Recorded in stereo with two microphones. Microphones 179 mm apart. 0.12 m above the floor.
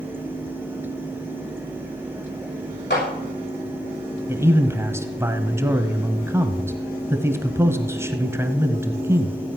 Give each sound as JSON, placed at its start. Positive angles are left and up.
{"t": 2.9, "sound": "a clap", "side_deg": 75, "distance_m": 6.0}
{"t": 4.3, "sound": "a man speaking", "side_deg": -15, "distance_m": 1.1}